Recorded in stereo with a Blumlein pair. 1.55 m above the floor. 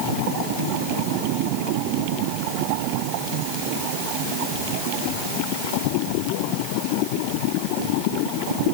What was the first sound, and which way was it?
Only background noise.